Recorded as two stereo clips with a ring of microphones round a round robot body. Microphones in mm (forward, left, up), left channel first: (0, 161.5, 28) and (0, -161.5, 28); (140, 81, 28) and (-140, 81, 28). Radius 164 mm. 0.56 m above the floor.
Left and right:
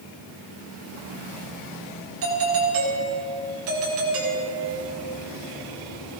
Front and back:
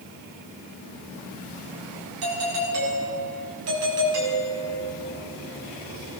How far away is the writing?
No writing in this recording.